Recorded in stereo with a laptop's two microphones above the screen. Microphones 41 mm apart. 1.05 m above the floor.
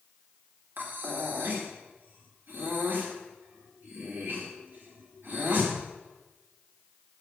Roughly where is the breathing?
Right.